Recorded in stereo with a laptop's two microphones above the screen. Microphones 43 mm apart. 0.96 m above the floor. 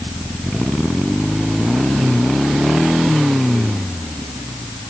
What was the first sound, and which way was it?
Only background noise.